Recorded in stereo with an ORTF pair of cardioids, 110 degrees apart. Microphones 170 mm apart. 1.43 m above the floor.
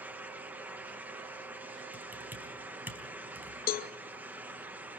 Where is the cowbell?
60° left, 0.8 m.